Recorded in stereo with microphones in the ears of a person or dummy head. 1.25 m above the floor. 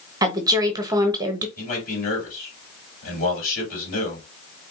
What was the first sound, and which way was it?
A woman speaking, 15° right (ahead or behind).